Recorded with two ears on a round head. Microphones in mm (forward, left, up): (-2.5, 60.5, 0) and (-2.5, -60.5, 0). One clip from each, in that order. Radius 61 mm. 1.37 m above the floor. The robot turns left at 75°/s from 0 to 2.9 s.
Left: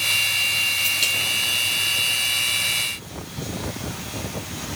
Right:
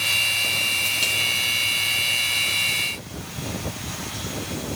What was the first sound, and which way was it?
Only background noise.